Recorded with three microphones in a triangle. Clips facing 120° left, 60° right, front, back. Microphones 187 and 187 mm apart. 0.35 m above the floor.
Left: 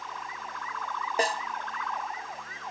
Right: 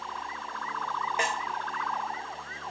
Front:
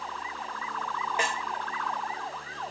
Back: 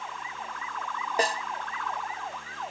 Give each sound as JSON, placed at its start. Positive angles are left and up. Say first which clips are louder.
{"t": 1.2, "sound": "a snare drum", "louder": "left 5 dB, back 6 dB", "azimuth_deg": 150, "distance_m": 0.6}